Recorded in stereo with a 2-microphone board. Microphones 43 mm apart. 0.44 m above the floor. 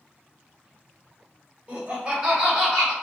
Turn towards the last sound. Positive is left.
turn(degrees=5)  # may be behind; listen again after turning